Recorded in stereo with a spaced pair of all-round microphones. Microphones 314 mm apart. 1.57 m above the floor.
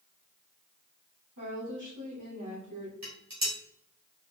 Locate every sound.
1.4 s a woman speaking: 70° right (ahead or behind), 1.9 m
3.0 s dishes clattering: 60° right (ahead or behind), 2 m